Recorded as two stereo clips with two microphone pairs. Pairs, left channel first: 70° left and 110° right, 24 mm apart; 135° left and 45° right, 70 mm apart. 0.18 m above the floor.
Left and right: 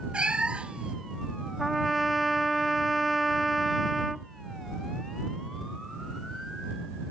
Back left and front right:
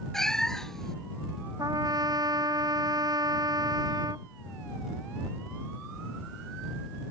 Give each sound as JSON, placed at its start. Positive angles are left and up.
{"t": 0.1, "sound": "a cat meowing", "azimuth_deg": -145}
{"t": 1.6, "sound": "a trumpet", "azimuth_deg": -25}